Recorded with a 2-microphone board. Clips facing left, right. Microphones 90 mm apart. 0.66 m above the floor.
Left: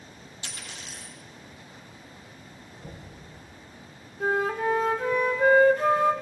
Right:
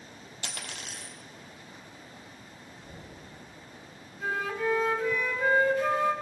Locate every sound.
0.4 s a dropped coin: 65° right (ahead or behind), 1.7 m
2.8 s knocking: 80° left, 4.5 m
4.2 s a flute: 50° left (ahead or behind), 0.9 m